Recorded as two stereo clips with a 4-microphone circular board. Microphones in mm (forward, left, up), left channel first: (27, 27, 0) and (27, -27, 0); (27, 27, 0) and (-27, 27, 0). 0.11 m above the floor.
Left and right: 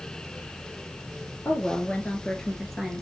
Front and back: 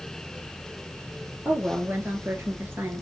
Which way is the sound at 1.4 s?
145° left.